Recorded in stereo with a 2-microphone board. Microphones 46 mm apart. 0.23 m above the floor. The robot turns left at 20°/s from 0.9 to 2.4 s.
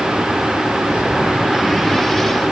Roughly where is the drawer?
No drawer in this recording.